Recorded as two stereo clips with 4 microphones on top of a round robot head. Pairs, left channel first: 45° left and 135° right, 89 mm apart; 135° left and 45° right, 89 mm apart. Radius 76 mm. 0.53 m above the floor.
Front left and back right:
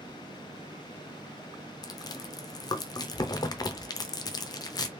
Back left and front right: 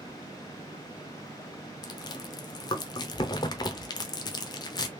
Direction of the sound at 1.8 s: 90° left.